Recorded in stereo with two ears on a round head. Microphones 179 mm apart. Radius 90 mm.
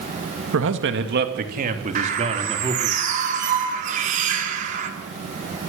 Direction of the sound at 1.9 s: 40° right (ahead or behind).